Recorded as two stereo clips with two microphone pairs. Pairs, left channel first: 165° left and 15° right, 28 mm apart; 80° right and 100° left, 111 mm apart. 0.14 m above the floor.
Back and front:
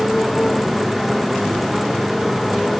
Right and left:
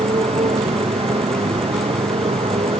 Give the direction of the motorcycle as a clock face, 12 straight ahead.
10 o'clock.